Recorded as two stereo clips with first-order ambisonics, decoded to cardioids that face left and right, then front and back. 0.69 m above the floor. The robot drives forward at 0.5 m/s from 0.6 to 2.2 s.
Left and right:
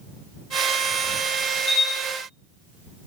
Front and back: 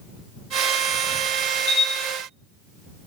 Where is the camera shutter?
45° left, 1.2 m; by 1.9 s 50° left, 1.2 m.